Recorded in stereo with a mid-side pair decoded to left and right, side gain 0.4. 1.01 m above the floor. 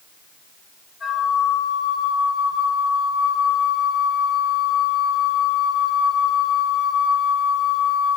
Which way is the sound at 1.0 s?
45° left.